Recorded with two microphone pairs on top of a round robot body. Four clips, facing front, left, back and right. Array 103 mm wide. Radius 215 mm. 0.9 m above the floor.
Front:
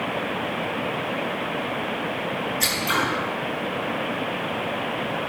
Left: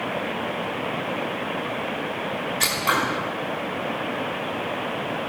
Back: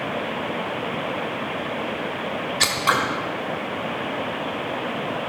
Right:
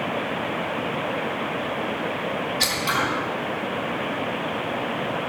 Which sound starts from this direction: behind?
Scissors, at 2.6 s.